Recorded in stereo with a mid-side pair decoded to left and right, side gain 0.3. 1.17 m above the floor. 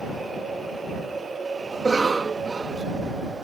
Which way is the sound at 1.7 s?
45° right.